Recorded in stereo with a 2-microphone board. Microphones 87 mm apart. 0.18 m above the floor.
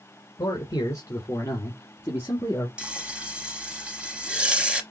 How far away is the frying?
About 1.0 m.